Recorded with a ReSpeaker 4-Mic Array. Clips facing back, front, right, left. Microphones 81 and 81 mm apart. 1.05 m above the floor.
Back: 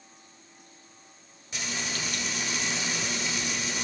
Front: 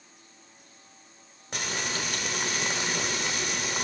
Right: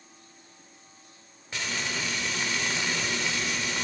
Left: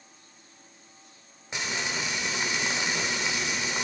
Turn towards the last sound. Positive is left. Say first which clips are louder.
# front 2 dB, left 1 dB
turn(degrees=20)